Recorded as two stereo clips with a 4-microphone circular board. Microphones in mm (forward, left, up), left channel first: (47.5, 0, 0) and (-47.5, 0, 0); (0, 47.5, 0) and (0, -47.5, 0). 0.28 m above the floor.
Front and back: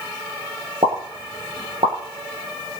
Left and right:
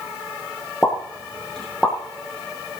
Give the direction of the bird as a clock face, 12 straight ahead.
No bird in this recording.